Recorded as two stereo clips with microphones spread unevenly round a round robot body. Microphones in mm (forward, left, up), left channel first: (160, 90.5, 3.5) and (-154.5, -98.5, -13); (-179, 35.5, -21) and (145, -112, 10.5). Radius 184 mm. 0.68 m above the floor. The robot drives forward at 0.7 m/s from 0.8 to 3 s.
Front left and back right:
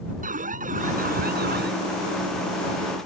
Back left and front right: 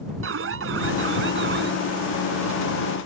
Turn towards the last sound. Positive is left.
turn(degrees=-95)